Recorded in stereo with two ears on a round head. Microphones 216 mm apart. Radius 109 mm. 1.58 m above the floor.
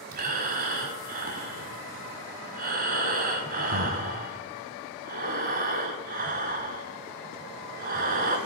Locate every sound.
0.1 s breathing: 40° right (ahead or behind), 1.8 m